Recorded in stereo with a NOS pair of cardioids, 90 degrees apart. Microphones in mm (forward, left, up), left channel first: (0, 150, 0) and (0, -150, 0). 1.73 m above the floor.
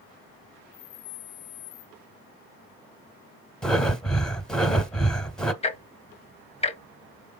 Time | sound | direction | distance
3.6 | breathing | 5° left | 0.6 m
5.6 | ticking | 20° left | 0.5 m